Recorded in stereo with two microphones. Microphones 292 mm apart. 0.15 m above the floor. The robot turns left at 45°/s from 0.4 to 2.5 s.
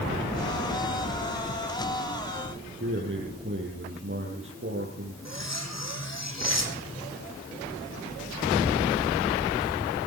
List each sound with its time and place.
2.8 s a man speaking: 45° right (ahead or behind), 4.5 m
5.2 s cutlery clinking: 60° left (ahead or behind), 4 m